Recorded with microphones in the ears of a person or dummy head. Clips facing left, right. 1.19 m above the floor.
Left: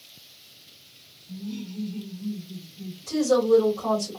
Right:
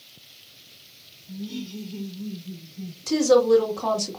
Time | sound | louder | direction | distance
1.3 | laughter | right 1 dB | 45° right (ahead or behind) | 1.7 m
3.1 | a woman speaking | right 3 dB | 80° right | 2 m